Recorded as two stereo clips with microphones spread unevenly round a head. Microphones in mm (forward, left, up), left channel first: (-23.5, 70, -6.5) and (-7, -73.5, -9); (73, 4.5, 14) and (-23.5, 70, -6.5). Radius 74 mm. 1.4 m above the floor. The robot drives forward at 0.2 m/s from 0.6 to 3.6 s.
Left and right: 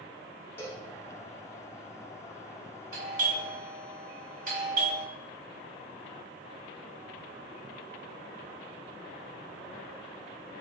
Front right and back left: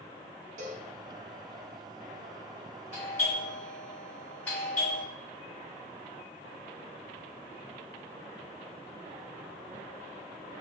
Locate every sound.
0.6 s a cowbell: 165° left, 0.8 m; by 0.9 s 170° left, 0.8 m
2.9 s a doorbell: 110° right, 1.5 m; by 5.0 s 115° right, 1.6 m